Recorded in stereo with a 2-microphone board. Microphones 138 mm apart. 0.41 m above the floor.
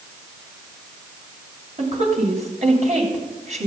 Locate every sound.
1.8 s a woman speaking: 60° right (ahead or behind), 2.5 m